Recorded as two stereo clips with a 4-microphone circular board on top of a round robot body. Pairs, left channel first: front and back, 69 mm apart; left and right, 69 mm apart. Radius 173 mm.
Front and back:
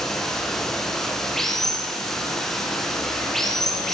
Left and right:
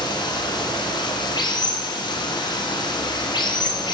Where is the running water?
85° left, 4 m.